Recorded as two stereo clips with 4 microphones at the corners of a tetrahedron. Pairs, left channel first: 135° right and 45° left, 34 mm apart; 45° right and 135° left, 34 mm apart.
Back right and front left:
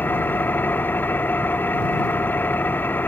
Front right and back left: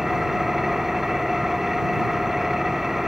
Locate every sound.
0.0 s an engine running: 145° right